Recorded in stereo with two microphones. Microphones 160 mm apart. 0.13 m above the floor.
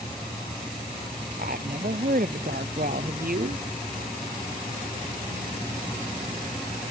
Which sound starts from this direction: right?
A woman speaking, at 1.4 s.